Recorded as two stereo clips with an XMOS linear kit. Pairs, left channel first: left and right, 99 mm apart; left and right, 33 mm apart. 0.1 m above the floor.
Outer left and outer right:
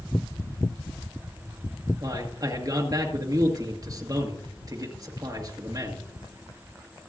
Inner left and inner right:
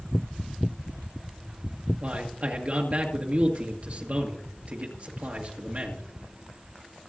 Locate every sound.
2.0 s a man speaking: 40° right (ahead or behind), 1.9 m